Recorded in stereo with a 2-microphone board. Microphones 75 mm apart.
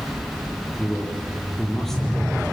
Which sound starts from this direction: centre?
A man speaking, at 0.8 s.